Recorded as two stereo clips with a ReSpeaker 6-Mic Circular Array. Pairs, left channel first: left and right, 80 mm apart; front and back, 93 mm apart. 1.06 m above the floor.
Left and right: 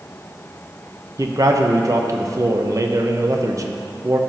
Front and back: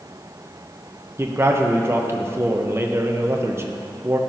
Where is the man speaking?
125° right, 0.7 m.